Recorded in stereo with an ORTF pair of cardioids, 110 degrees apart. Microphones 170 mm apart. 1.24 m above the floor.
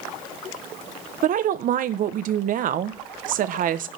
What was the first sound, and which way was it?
A woman speaking, 55° right.